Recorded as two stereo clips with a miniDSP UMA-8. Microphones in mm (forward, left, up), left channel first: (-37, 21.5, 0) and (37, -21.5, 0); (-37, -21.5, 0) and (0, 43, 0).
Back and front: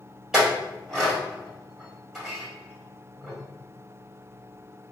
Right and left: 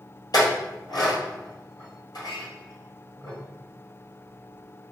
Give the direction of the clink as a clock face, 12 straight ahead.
4 o'clock.